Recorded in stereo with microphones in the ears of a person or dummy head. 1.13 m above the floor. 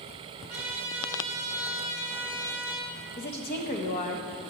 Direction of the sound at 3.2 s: 40° left (ahead or behind).